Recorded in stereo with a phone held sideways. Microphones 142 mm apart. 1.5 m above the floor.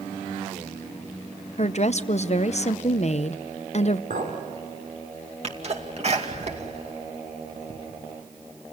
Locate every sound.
1.6 s a woman speaking: 50° left (ahead or behind), 0.6 m
4.1 s a clink: 85° right, 4 m
5.4 s a sneeze: 50° right (ahead or behind), 2.5 m